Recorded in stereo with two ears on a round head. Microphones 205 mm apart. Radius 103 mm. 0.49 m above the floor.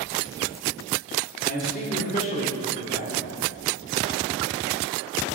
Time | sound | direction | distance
1.4 | a man speaking | 35° left (ahead or behind) | 1.2 m